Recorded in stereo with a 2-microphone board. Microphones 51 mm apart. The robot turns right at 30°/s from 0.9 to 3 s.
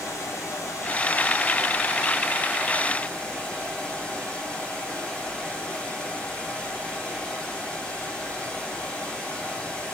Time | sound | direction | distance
0.0 | running water | 95° left | 3 m